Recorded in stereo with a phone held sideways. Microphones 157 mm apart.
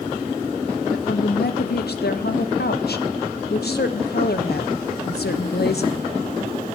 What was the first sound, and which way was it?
A woman speaking, 80° left.